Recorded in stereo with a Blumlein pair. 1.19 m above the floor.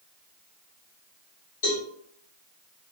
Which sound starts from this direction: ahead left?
A cowbell, at 1.6 s.